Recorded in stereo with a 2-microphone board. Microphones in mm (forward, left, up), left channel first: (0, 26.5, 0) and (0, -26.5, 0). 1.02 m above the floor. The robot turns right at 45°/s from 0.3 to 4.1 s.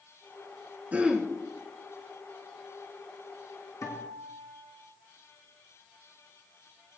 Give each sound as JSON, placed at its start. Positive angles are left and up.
{"t": 0.9, "sound": "throat clearing", "side_deg": -30, "distance_m": 2.5}
{"t": 3.8, "sound": "a guitar", "side_deg": 80, "distance_m": 3.0}